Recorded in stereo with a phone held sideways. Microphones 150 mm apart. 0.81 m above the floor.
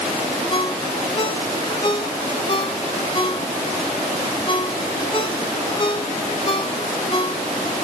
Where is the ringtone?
35° left (ahead or behind), 1.1 m.